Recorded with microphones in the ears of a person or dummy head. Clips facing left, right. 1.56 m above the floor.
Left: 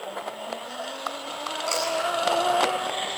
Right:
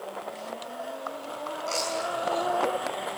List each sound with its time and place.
1.7 s chewing: 55° left (ahead or behind), 8.5 m